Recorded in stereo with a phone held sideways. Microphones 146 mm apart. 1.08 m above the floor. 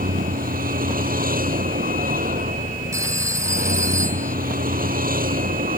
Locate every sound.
0.0 s a vehicle: 80° right
2.9 s a phone ringing: 20° right (ahead or behind)